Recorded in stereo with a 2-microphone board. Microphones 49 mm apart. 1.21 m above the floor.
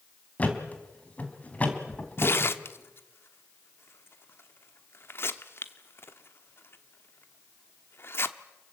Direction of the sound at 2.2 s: 55° left (ahead or behind).